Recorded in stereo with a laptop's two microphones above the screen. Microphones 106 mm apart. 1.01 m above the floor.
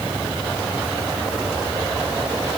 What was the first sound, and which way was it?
Only background noise.